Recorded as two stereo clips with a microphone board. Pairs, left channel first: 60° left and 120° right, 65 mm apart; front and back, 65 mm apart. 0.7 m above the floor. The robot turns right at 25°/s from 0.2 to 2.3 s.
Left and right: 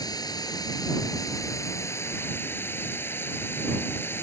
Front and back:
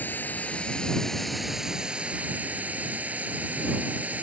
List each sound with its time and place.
0.0 s running water: 60° left; by 4.2 s 115° left